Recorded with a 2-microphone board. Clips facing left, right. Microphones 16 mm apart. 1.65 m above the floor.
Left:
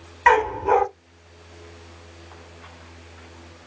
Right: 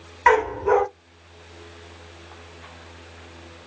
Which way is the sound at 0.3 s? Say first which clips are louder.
Left 1 dB; centre (ahead or behind).